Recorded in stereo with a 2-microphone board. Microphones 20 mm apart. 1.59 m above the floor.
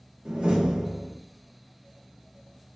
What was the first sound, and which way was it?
A door slam, 55° right (ahead or behind).